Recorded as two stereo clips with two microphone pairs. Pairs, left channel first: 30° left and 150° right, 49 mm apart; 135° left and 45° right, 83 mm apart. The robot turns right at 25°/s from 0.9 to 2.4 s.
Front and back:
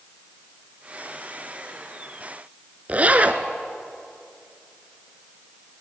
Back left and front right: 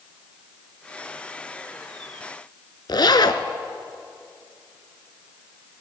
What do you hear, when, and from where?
2.9 s a zipper: 155° left, 0.7 m